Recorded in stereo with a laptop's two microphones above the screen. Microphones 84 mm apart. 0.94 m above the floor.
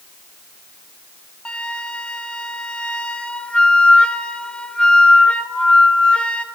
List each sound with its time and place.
1.4 s a flute: 10° left (ahead or behind), 0.5 m